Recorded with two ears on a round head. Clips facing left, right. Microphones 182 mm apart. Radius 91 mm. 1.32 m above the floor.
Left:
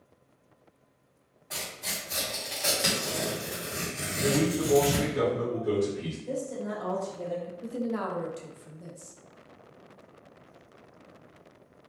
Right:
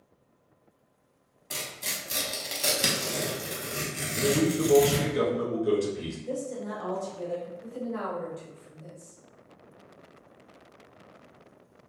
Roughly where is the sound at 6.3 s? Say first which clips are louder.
Left 1 dB; centre.